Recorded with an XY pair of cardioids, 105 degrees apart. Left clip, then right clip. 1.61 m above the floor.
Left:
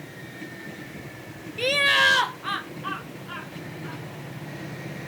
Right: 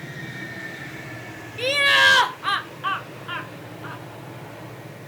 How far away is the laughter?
About 0.5 m.